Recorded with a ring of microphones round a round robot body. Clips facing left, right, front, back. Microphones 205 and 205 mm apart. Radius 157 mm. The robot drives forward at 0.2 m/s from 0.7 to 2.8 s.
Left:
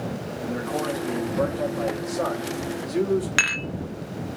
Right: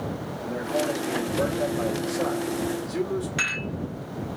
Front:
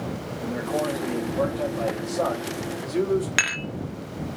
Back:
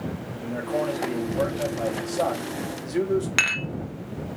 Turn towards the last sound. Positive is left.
turn(degrees=85)